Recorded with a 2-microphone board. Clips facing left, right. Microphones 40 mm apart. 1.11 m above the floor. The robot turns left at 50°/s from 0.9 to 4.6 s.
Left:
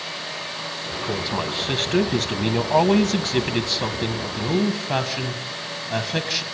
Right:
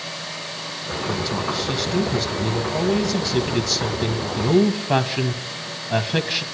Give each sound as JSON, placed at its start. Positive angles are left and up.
{"t": 1.1, "sound": "a man speaking", "azimuth_deg": 160, "distance_m": 1.0}